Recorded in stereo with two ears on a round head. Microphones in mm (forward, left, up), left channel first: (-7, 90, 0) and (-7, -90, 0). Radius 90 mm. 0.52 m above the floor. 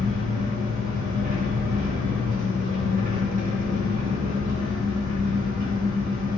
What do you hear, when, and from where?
0.0 s an engine running: 40° right (ahead or behind), 0.7 m